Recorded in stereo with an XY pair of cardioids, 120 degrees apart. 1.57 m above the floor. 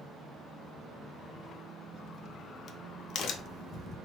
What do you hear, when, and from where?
1.9 s a crack: 55° left, 0.5 m